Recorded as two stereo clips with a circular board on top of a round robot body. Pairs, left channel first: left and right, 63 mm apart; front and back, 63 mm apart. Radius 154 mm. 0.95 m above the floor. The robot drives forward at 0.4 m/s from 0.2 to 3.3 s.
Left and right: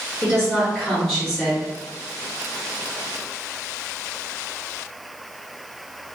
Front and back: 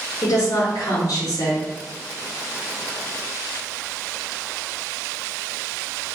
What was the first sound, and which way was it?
A woman speaking, 5° left.